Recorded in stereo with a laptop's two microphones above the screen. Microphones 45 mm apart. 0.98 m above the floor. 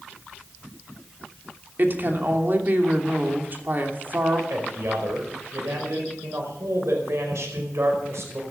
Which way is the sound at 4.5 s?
80° right.